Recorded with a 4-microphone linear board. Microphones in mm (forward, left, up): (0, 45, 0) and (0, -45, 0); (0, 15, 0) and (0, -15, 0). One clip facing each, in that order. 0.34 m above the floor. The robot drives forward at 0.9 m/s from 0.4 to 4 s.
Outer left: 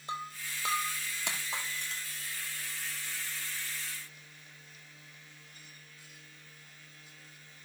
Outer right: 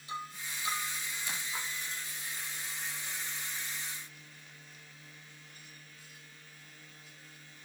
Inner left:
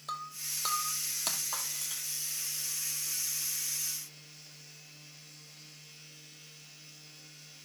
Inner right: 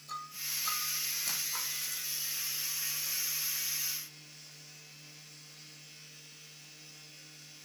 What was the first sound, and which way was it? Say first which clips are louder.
Breaking glass: outer left 2 dB, inner left 1 dB; 55° left (ahead or behind).